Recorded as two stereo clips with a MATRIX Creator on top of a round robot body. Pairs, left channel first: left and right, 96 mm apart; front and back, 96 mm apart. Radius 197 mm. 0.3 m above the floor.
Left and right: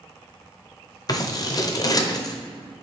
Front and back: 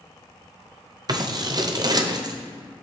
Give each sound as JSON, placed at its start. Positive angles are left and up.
{"t": 1.1, "sound": "scissors", "azimuth_deg": 135, "distance_m": 0.9}